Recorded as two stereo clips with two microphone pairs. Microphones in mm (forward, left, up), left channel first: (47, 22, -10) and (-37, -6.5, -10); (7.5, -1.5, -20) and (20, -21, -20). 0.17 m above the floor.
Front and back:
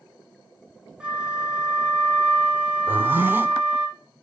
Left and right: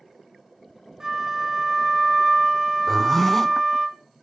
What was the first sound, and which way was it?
A flute, 95° right.